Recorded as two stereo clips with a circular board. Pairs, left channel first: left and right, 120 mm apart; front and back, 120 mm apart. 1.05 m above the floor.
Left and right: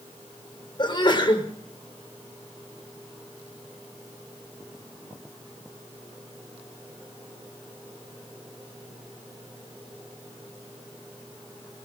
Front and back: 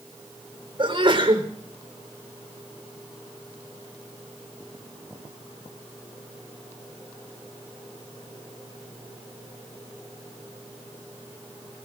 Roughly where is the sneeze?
Behind left.